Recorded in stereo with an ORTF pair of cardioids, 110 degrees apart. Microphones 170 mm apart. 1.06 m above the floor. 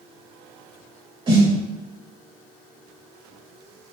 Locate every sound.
1.3 s a snare drum: 30° right, 1.9 m